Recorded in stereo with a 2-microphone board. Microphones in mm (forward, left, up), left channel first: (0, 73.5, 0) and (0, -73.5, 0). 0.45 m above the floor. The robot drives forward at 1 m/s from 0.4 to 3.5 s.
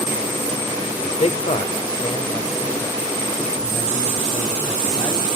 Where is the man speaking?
50° left (ahead or behind), 1.0 m; by 5.3 s 15° left (ahead or behind), 2.5 m.